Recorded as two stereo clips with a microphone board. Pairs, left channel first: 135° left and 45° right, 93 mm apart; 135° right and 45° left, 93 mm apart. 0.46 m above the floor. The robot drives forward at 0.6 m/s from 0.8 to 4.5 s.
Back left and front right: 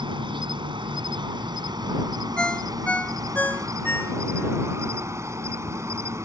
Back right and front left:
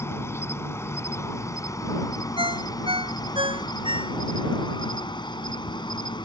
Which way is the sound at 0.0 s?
75° right.